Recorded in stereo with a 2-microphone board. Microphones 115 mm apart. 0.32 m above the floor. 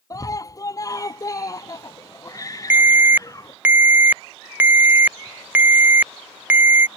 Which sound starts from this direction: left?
A scream, at 0.1 s.